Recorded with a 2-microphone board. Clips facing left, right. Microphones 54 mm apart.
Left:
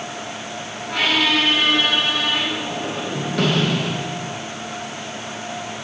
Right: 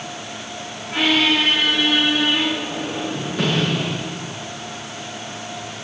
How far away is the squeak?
About 5 m.